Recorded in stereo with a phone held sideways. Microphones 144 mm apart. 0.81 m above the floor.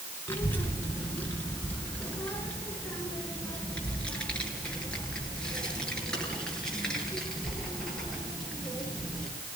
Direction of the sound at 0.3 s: 15° left (ahead or behind).